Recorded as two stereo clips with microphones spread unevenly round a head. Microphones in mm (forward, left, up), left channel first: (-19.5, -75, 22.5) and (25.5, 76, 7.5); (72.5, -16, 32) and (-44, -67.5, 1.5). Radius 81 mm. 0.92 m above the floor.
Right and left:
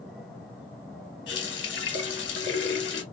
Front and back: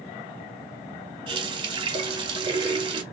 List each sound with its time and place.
1.3 s a running tap: 110° right, 1.2 m